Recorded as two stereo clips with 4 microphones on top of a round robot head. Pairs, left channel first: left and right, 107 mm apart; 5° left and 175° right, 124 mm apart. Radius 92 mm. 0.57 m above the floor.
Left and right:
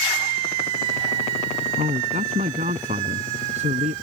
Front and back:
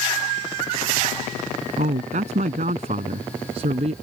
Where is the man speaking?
130° right; by 3.9 s 125° right.